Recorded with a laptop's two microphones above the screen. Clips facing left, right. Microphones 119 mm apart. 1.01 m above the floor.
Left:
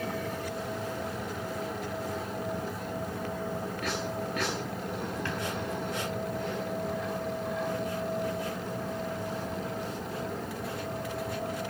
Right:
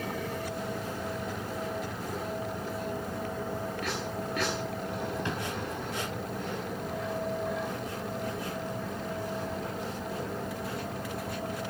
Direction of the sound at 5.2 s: 20° right (ahead or behind).